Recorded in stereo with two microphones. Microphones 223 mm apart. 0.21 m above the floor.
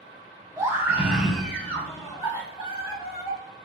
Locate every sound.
0.6 s a scream: 15° right (ahead or behind), 1.7 m; by 3.4 s 30° left (ahead or behind), 2.5 m